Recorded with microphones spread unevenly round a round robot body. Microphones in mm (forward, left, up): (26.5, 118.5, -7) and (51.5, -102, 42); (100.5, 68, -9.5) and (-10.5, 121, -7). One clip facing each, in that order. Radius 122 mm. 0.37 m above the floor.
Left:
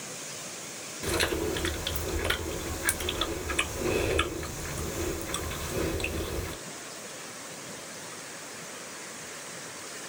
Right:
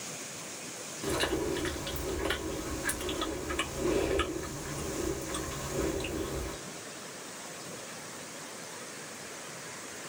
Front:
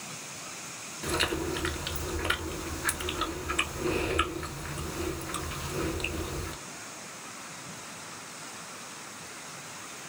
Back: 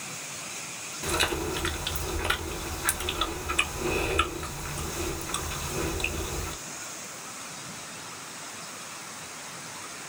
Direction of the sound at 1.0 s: 75° left.